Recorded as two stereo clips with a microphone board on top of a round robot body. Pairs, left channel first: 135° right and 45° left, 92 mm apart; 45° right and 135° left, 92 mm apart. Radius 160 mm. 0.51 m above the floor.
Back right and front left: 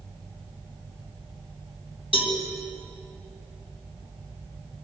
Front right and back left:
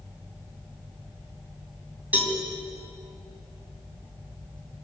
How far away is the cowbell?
About 3 m.